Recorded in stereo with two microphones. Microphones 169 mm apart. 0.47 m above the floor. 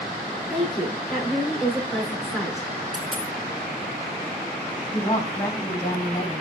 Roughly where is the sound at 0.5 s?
Centre.